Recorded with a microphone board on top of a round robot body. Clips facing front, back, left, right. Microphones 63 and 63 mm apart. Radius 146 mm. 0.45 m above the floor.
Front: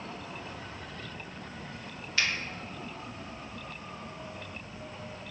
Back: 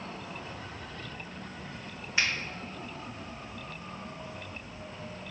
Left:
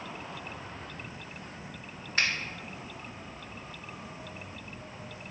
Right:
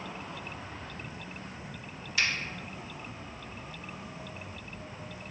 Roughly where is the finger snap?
Behind left.